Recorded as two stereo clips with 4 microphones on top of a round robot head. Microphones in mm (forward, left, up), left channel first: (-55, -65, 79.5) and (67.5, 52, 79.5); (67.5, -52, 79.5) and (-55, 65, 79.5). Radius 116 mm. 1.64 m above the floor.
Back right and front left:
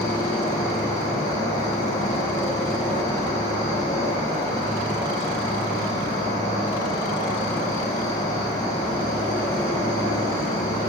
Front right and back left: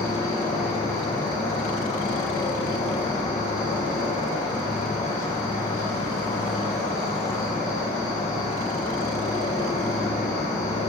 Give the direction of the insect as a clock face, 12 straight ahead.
3 o'clock.